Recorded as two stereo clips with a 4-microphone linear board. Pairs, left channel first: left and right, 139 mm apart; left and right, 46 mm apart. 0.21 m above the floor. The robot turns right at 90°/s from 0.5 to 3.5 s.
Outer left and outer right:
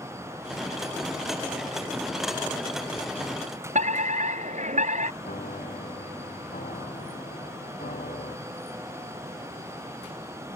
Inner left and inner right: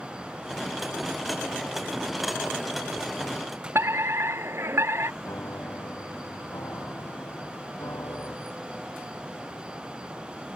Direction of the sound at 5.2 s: 80° left.